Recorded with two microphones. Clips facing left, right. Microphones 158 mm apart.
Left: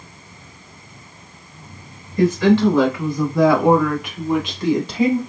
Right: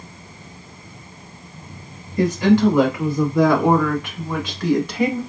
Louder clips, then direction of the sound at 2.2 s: Left 1 dB; 20° right (ahead or behind).